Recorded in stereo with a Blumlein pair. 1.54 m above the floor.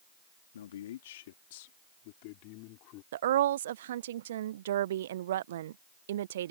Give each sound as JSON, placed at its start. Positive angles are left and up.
{"t": 0.5, "sound": "a man speaking", "azimuth_deg": 65}
{"t": 3.1, "sound": "a woman speaking", "azimuth_deg": -60}